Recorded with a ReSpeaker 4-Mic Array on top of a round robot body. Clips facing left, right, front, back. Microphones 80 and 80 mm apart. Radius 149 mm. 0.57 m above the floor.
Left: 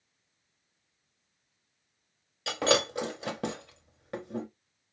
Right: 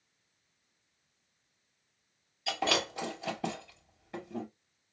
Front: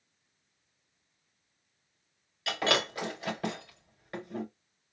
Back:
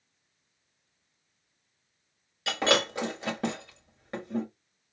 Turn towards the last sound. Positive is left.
turn(degrees=115)